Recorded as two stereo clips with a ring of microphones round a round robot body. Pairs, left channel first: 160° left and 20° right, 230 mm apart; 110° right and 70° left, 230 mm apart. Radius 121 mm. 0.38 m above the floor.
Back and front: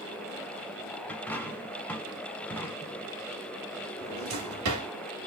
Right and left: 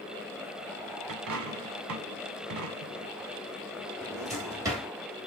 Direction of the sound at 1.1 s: 75° left.